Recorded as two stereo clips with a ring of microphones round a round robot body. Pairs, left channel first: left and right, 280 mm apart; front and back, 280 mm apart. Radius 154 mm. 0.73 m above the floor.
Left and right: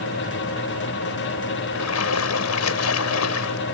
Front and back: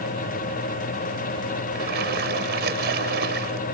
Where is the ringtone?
No ringtone in this recording.